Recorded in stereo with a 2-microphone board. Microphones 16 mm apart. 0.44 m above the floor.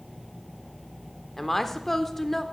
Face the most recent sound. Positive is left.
turn(degrees=20)  # may be behind; listen again after turning